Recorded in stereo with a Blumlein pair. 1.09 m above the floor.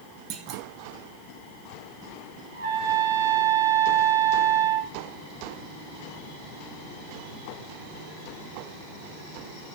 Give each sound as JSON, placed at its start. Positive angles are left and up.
{"t": 0.3, "sound": "a clunk", "azimuth_deg": -35, "distance_m": 2.5}
{"t": 2.5, "sound": "a trumpet", "azimuth_deg": -50, "distance_m": 7.0}